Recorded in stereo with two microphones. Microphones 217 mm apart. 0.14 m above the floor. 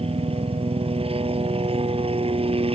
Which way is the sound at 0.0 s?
25° right (ahead or behind).